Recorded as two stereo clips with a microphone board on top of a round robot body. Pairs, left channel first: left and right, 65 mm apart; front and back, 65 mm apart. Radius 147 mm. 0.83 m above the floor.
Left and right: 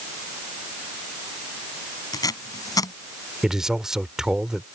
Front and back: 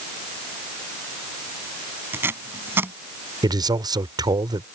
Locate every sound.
2.1 s tape being pulled: 120° left
3.4 s a man speaking: 175° right